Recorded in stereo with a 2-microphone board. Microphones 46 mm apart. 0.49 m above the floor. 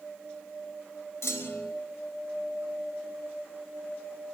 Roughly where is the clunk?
Left.